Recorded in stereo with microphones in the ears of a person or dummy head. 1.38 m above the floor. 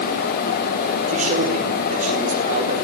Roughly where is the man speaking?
Right.